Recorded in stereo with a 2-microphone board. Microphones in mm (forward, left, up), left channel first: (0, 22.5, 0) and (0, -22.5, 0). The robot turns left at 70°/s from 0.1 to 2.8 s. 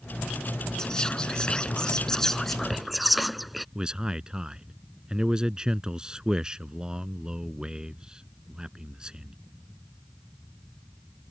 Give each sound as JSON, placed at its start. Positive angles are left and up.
{"t": 0.8, "sound": "whispering", "side_deg": 15}
{"t": 3.8, "sound": "a man speaking", "side_deg": -20}